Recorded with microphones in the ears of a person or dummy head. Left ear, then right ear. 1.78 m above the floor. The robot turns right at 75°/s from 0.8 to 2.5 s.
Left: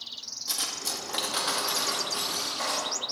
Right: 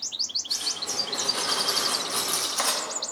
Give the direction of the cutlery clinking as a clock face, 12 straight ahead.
8 o'clock.